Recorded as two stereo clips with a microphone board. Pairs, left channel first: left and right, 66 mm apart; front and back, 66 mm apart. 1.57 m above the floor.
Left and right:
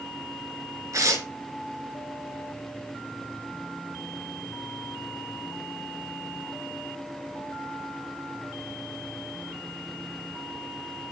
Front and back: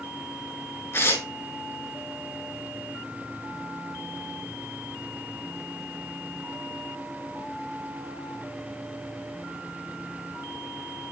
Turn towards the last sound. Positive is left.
turn(degrees=-55)